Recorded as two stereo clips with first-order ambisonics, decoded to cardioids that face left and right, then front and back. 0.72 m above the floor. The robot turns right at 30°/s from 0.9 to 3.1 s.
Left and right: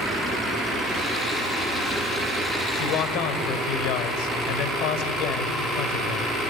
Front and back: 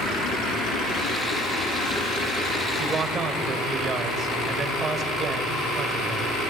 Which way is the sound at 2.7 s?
100° left.